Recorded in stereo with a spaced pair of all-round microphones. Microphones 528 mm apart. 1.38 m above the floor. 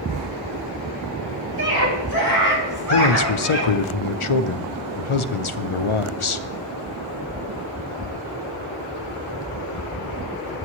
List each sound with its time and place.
1.6 s a scream: 45° right (ahead or behind), 4.5 m; by 3.8 s 25° right (ahead or behind), 4 m
2.9 s a man speaking: 65° left (ahead or behind), 0.8 m